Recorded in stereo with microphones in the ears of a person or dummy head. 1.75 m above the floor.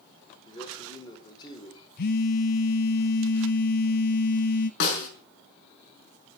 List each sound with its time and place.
0.5 s a man speaking: 30° left (ahead or behind), 4.5 m
2.0 s a phone buzzing: 50° left (ahead or behind), 1.2 m
4.8 s a snare drum: 65° left (ahead or behind), 4.5 m